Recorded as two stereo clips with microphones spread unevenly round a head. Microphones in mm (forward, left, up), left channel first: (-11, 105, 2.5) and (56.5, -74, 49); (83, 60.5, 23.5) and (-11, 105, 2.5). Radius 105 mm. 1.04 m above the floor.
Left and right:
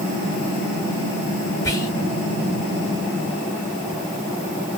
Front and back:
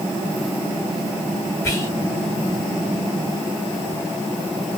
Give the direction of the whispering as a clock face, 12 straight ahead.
11 o'clock.